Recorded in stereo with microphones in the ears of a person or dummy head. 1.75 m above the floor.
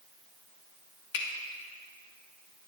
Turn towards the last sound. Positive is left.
turn(degrees=60)  # may be behind; listen again after turning